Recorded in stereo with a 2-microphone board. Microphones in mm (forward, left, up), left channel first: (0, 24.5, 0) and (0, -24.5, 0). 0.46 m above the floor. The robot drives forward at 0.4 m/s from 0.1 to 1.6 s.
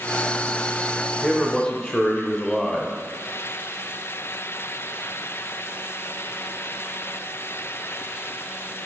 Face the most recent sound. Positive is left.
turn(degrees=15)  # may be behind; listen again after turning